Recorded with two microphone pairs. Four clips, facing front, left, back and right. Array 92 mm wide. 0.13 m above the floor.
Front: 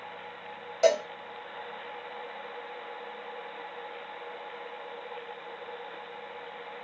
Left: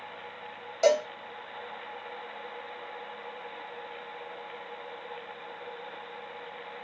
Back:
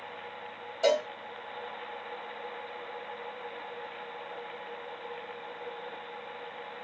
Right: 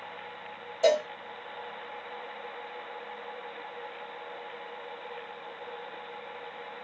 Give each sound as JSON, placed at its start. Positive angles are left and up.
{"t": 0.8, "sound": "a cowbell", "azimuth_deg": 50, "distance_m": 1.7}